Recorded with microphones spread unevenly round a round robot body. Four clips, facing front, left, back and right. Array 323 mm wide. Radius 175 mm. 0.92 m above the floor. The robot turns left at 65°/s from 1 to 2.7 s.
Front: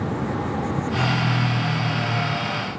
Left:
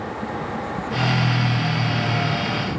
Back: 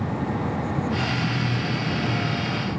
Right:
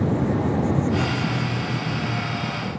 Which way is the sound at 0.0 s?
100° right.